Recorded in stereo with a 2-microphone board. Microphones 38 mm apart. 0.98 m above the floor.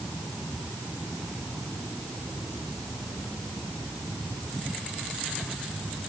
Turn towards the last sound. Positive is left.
No sound to turn to.